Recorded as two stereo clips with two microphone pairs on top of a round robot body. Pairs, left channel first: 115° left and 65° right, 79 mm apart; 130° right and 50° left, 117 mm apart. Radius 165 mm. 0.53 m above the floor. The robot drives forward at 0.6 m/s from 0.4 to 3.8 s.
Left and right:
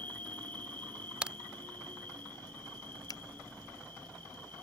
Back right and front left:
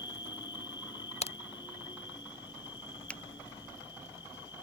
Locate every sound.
0.0 s an insect: 175° right; by 4.6 s straight behind
1.2 s a crack: 140° right
3.1 s a finger snap: 150° left; by 3.2 s 155° left